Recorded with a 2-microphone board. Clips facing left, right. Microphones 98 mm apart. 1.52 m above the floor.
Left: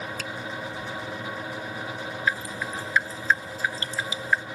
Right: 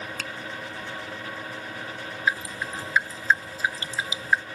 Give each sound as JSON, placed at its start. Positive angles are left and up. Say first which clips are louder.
{"t": 0.2, "sound": "a finger snap", "louder": "left 1 dB", "side_deg": -65}
{"t": 2.3, "sound": "dripping", "louder": "right 1 dB", "side_deg": -15}